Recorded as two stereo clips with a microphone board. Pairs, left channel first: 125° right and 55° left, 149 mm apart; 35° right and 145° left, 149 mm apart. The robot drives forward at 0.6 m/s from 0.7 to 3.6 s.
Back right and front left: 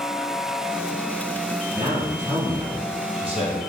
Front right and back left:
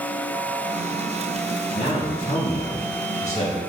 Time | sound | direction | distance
1.7 | a man speaking | straight ahead | 1.9 m